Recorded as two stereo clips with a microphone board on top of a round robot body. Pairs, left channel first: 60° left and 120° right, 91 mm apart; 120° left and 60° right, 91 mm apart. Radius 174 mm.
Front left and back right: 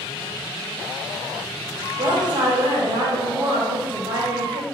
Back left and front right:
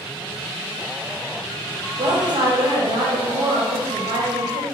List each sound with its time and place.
2.0 s a woman speaking: 90° right, 1.3 m